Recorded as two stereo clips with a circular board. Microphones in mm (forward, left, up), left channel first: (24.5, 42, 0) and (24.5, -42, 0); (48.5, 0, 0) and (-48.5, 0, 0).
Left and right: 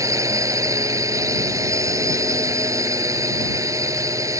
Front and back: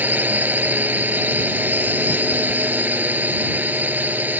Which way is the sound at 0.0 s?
115° right.